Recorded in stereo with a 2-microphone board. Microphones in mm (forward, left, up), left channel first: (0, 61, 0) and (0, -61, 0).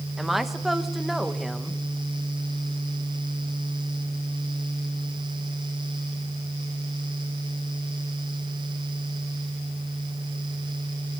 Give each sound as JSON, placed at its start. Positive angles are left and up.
{"t": 0.2, "sound": "a woman speaking", "side_deg": 0, "distance_m": 1.4}